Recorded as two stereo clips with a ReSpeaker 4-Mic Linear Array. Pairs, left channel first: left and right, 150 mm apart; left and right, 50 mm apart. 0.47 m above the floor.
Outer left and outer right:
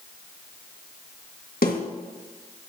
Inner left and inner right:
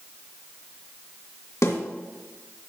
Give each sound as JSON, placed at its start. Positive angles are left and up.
{"t": 1.6, "sound": "a snare drum", "side_deg": 80, "distance_m": 2.0}